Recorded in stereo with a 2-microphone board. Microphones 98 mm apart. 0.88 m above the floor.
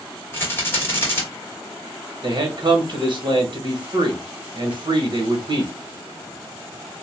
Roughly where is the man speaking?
Right.